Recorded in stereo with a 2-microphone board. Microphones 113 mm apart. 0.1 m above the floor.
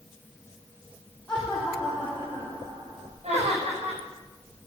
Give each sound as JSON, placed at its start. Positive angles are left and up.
{"t": 1.3, "sound": "laughter", "side_deg": 10, "distance_m": 3.5}
{"t": 3.2, "sound": "laughter", "side_deg": -70, "distance_m": 6.5}